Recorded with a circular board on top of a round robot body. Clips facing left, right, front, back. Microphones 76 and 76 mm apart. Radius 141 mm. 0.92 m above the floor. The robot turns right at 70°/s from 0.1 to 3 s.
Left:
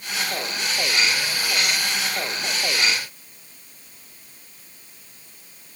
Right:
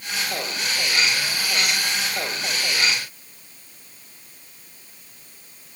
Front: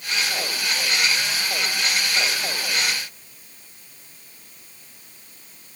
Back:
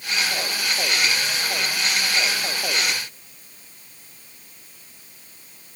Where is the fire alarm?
No fire alarm in this recording.